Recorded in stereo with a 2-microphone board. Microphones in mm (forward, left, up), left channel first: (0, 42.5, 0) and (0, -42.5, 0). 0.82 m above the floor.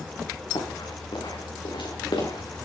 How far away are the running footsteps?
About 8.5 m.